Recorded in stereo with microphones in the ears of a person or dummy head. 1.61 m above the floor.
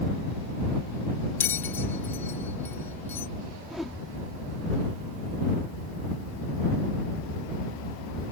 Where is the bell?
10° left (ahead or behind).